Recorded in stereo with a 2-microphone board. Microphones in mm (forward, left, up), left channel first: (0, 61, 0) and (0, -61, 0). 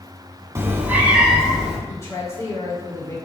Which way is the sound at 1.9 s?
25° left (ahead or behind).